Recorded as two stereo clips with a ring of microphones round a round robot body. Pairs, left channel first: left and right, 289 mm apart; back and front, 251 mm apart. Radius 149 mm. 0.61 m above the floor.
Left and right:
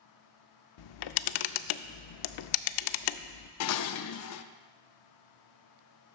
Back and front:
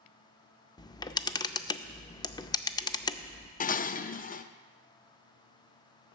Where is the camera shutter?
105° left, 0.5 m.